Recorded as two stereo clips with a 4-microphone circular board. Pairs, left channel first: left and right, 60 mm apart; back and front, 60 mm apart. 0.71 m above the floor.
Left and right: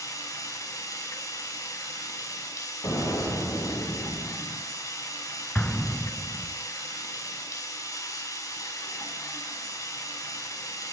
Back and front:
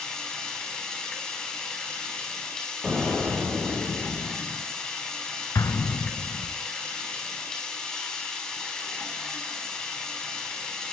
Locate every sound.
0.0 s running water: 100° left, 4.5 m
2.8 s an explosion: 85° left, 6.5 m
5.5 s an explosion: 160° left, 1.5 m